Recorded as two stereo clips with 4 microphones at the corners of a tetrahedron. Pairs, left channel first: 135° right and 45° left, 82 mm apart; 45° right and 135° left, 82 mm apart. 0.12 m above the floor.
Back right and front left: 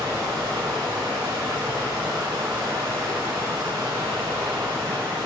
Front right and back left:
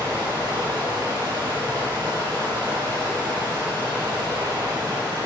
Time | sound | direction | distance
0.0 | running water | 90° left | 3.5 m